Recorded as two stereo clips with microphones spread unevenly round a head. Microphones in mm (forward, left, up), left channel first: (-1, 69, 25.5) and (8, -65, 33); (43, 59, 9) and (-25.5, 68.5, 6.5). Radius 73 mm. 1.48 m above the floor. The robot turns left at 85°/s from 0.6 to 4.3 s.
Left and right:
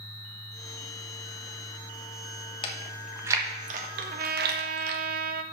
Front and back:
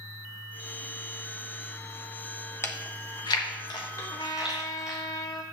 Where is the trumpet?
40° right, 0.7 m; by 5.4 s 70° right, 0.7 m.